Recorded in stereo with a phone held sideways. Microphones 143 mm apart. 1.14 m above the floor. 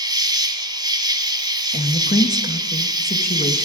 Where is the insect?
30° right (ahead or behind), 1.4 m.